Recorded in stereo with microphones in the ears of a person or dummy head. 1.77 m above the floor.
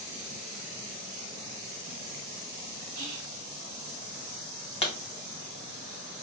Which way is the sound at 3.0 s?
80° right.